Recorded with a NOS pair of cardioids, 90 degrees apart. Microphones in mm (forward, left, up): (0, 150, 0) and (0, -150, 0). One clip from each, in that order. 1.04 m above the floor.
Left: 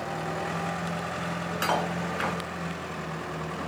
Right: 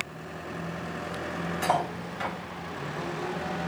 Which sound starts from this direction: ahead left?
Cutlery clinking, at 1.6 s.